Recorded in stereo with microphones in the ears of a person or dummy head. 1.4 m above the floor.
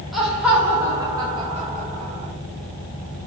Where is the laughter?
Centre (ahead or behind), 1.7 m; by 2.3 s 55° right (ahead or behind), 1.4 m.